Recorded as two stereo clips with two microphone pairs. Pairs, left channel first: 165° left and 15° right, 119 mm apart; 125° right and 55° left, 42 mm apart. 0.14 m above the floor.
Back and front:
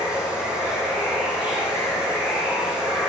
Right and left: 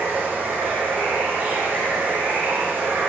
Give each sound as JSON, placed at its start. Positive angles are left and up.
{"t": 0.0, "sound": "running water", "azimuth_deg": 70, "distance_m": 8.5}